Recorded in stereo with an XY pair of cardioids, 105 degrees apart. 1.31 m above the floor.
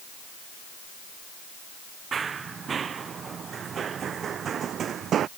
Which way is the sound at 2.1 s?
40° right.